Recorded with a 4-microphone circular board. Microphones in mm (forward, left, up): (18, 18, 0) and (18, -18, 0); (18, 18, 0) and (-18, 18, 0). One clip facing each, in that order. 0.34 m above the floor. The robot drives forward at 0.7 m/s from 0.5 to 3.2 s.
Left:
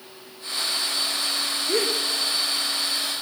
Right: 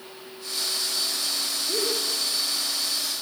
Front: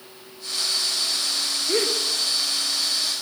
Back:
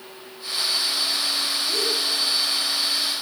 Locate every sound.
1.7 s a gasp: 45° left, 4 m; by 2.0 s 50° left, 3.5 m